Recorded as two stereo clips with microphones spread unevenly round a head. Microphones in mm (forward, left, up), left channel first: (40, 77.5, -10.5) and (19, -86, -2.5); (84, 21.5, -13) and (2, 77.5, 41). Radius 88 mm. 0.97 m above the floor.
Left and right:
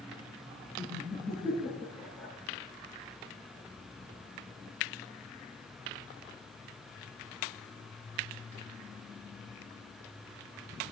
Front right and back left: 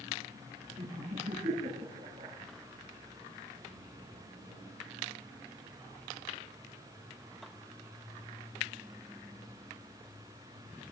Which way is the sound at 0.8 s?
175° left.